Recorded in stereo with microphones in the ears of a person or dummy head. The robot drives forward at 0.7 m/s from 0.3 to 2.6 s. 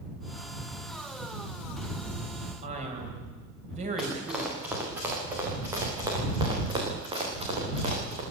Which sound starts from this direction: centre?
Running footsteps, at 4.0 s.